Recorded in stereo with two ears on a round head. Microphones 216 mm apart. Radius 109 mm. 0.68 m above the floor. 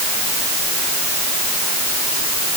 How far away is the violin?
I don't hear a violin.